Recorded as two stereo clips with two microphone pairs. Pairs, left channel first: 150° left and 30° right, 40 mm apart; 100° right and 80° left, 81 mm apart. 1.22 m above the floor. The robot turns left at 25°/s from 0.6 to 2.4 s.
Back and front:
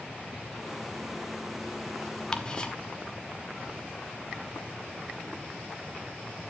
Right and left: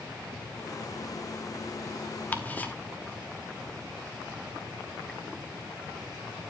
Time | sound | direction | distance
2.3 | ticking | 155° right | 0.8 m